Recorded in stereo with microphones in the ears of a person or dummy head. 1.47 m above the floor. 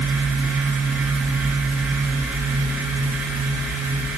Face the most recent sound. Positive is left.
No sound to turn to.